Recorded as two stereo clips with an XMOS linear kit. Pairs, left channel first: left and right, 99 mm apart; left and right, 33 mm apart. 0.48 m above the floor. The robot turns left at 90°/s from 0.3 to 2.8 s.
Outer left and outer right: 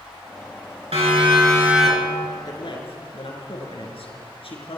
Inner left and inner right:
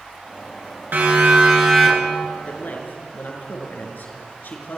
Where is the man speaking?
140° left, 6 m; by 4.8 s 110° left, 6 m.